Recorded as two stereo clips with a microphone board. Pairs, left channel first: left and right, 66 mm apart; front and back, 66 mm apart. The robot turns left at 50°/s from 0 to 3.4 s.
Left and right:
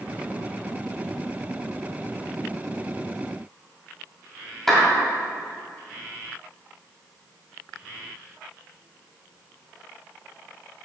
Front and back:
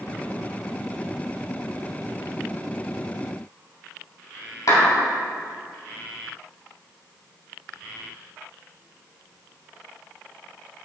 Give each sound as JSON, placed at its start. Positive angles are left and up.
{"t": 4.7, "sound": "a clap", "azimuth_deg": 5, "distance_m": 2.5}